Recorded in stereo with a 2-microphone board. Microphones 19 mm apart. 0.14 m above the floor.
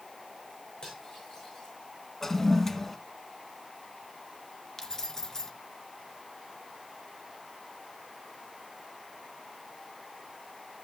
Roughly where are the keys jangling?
Left.